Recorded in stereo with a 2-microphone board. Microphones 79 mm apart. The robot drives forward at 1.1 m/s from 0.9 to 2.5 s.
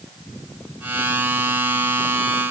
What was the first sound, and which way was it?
Only background noise.